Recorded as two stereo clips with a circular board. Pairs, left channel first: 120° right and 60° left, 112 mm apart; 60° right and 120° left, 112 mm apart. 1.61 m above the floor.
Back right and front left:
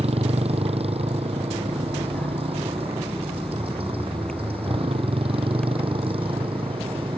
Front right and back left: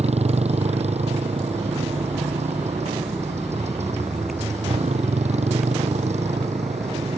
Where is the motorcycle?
95° left; by 7.2 s 100° left.